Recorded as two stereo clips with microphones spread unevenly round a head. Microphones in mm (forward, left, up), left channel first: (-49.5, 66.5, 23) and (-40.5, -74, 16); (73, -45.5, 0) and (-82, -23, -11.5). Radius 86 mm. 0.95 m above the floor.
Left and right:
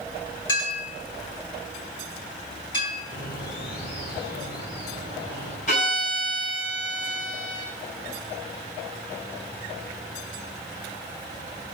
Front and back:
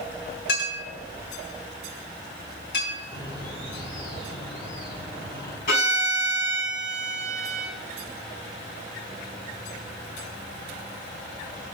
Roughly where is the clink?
Ahead left.